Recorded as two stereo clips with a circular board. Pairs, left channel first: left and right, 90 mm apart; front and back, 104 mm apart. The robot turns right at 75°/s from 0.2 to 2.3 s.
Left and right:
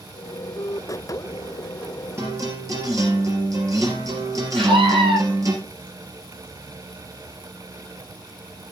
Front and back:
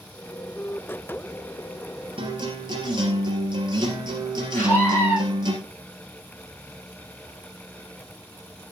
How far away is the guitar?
About 3.5 m.